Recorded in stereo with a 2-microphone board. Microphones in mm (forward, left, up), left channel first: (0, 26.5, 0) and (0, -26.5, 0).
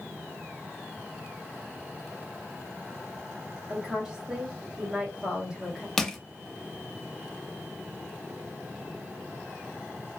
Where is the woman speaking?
20° right (ahead or behind), 1.2 m.